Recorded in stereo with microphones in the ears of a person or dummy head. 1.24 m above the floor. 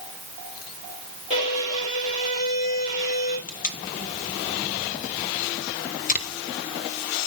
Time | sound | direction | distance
1.3 | a violin | 30° left (ahead or behind) | 4 m
3.5 | tape being pulled | 35° left (ahead or behind) | 1.0 m